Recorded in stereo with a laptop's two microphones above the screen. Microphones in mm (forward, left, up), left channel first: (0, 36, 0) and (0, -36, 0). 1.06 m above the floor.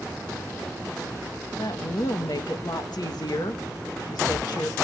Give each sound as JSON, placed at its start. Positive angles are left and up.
{"t": 1.6, "sound": "a woman speaking", "side_deg": 65, "distance_m": 1.6}